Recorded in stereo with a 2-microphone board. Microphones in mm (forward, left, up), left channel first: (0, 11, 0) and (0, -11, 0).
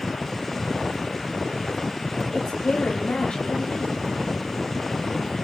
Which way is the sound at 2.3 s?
65° left (ahead or behind).